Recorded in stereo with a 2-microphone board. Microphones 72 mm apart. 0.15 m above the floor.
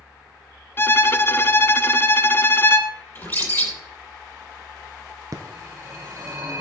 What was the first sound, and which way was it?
A violin, 30° left (ahead or behind).